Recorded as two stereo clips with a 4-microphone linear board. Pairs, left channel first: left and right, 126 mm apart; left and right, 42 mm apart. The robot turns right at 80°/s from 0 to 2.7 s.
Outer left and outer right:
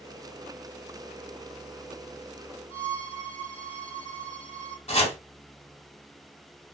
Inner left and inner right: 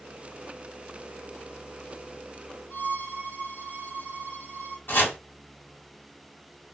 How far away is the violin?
About 4 m.